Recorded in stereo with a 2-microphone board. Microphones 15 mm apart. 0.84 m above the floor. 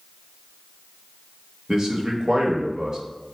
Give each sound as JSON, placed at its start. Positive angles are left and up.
{"t": 1.7, "sound": "a man speaking", "side_deg": -30, "distance_m": 0.8}